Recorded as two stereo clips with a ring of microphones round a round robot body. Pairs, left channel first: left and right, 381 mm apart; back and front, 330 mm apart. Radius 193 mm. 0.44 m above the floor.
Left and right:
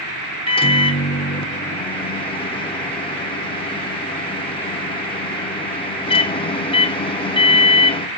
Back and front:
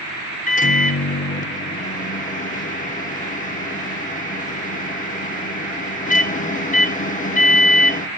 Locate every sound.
0.5 s a microwave: 150° left, 0.8 m